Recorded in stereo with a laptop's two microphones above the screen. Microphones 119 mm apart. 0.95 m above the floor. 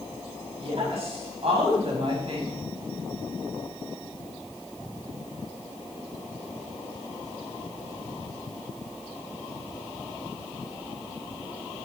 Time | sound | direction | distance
0.6 | a woman speaking | 55° right (ahead or behind) | 6 m